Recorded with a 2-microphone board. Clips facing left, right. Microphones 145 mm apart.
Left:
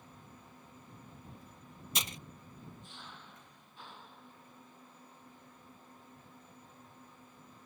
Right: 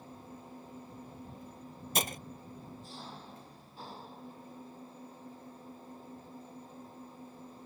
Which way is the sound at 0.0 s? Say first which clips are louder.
Right 7 dB; 40° right (ahead or behind).